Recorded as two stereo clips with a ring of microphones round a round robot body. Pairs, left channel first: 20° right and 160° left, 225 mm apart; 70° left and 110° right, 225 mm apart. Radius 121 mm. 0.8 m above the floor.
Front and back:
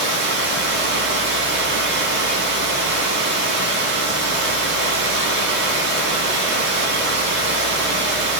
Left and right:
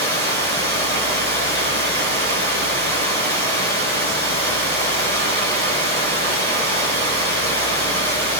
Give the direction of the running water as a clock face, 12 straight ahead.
5 o'clock.